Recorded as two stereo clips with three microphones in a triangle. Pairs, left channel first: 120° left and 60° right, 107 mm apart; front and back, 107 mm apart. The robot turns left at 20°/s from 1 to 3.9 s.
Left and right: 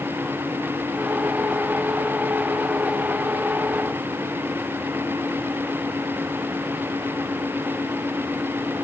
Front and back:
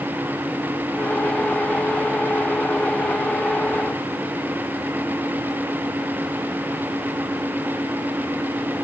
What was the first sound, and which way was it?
Only background noise.